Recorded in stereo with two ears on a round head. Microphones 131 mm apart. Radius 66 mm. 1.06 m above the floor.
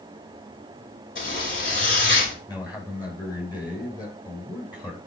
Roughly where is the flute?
No flute in this recording.